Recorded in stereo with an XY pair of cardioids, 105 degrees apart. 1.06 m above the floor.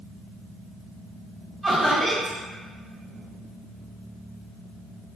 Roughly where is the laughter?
Ahead.